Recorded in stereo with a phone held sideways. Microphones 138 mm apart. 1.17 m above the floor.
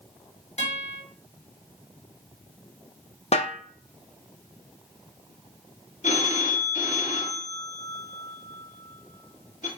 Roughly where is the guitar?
Left.